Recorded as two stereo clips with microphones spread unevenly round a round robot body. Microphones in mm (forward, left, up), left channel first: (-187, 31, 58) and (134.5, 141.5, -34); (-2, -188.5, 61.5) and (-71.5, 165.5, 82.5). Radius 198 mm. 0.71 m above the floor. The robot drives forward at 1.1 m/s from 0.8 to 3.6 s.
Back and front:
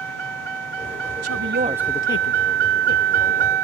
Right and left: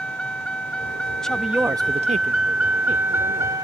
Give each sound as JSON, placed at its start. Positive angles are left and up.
{"t": 0.0, "sound": "a vehicle", "azimuth_deg": 10}
{"t": 1.2, "sound": "a woman speaking", "azimuth_deg": 5}